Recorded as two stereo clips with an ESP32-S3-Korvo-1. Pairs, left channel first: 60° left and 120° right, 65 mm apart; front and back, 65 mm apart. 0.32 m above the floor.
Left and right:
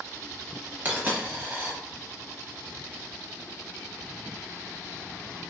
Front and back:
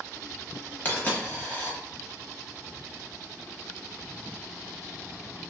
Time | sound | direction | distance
0.8 | a dropped coin | 55° right | 0.9 m